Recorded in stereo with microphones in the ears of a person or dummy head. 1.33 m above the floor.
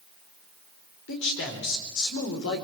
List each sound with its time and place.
1.1 s a man speaking: 70° left (ahead or behind), 4 m